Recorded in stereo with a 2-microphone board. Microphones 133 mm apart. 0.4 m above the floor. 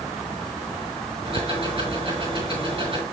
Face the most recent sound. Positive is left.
turn(degrees=-45)  # may be behind; listen again after turning